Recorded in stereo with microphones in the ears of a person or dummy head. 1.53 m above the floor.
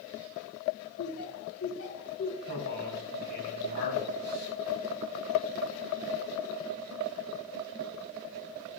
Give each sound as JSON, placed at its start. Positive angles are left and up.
{"t": 1.0, "sound": "laughter", "side_deg": 90, "distance_m": 4.0}
{"t": 2.5, "sound": "a man speaking", "side_deg": 55, "distance_m": 6.0}